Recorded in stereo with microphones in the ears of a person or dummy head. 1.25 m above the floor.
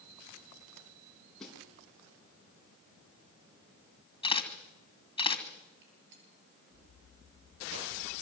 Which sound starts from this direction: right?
A gunshot, at 5.8 s.